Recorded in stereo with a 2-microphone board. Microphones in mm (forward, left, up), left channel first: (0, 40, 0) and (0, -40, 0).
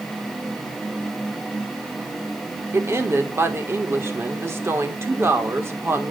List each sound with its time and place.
2.7 s a woman speaking: 35° right (ahead or behind), 1.2 m